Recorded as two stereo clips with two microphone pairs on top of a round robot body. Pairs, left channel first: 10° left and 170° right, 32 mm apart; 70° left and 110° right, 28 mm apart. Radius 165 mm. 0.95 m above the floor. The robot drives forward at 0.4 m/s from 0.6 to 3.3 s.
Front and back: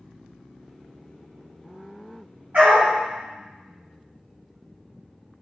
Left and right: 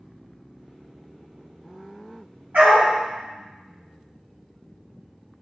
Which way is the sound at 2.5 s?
130° right.